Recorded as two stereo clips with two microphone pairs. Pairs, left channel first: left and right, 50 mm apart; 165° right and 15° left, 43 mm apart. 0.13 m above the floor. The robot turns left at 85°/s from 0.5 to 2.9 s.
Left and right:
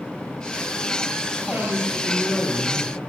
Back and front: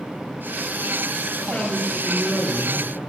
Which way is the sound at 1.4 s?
100° right.